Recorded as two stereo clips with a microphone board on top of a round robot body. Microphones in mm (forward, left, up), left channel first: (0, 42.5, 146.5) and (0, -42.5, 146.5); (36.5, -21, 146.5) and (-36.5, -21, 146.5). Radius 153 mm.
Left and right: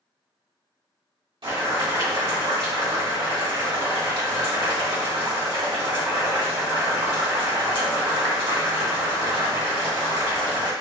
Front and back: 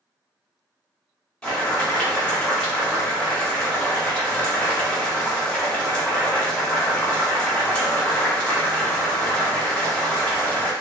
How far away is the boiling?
About 2.0 m.